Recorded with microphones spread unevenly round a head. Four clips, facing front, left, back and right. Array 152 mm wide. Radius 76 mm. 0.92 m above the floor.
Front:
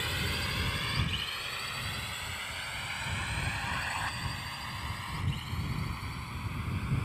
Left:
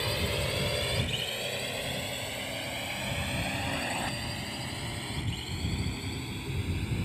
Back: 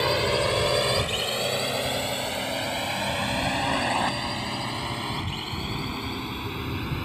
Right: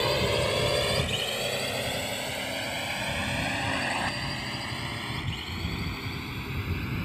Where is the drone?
145° right; by 7.1 s 170° right.